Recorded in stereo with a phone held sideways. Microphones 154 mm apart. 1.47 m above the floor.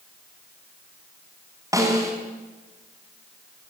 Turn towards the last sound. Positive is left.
turn(degrees=-20)  # may be behind; listen again after turning